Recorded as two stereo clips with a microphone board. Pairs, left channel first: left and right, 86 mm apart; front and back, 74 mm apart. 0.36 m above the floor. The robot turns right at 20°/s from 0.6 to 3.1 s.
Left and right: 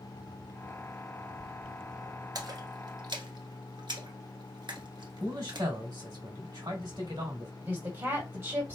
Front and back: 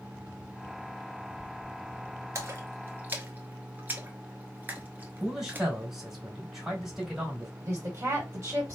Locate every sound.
2.4 s a splash: 130° right, 1.0 m; by 5.7 s 115° right, 1.0 m
5.2 s a man speaking: 95° right, 1.9 m
7.6 s a woman speaking: 130° right, 1.8 m